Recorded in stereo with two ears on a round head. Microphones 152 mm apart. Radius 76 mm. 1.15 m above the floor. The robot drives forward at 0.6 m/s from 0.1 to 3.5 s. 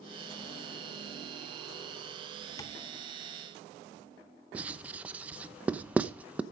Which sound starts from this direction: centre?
Writing, at 4.5 s.